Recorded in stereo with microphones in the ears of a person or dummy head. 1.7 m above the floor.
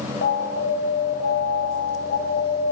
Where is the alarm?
60° left (ahead or behind), 7 m.